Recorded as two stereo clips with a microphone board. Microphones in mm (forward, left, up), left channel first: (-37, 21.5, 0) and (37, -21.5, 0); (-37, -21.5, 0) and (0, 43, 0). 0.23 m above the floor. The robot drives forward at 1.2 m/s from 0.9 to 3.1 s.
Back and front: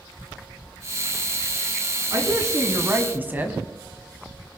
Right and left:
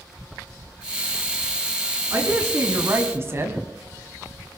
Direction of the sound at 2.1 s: 10° left.